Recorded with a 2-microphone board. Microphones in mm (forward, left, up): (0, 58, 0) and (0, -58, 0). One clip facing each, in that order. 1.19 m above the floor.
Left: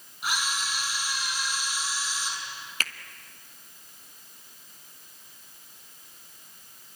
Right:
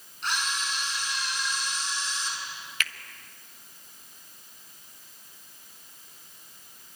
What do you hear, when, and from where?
0.2 s a camera shutter: 10° left (ahead or behind), 6 m
2.8 s a finger snap: 35° left (ahead or behind), 1.1 m